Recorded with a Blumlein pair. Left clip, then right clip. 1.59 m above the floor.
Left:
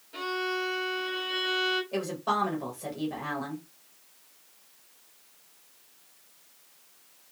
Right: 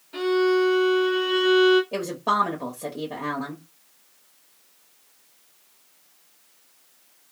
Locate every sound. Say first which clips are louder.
0.1 s a violin: right 10 dB; 70° right, 1.2 m
1.9 s a woman speaking: right 5 dB; 30° right, 1.1 m